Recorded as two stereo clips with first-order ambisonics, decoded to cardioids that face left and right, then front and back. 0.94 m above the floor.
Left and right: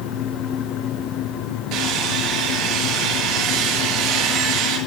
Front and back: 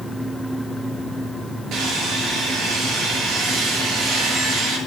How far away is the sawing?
About 7 m.